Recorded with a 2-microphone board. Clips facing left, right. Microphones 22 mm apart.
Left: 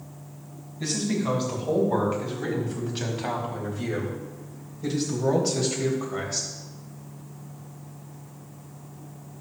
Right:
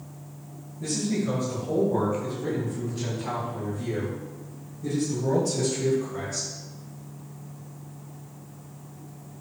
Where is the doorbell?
I don't hear a doorbell.